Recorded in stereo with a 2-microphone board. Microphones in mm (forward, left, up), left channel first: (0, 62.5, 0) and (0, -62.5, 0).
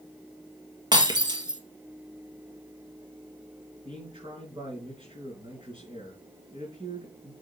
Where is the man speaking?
45° right (ahead or behind), 4 m.